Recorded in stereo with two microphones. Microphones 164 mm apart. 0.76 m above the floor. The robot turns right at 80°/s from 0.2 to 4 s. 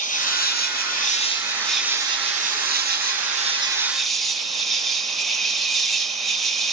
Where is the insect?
55° left, 0.9 m; by 6.7 s straight ahead, 0.9 m.